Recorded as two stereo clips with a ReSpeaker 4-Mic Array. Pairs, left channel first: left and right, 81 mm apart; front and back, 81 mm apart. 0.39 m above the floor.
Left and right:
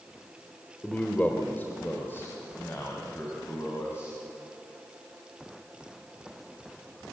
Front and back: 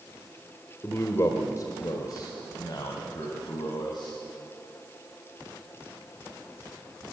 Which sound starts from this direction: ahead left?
A man speaking, at 0.8 s.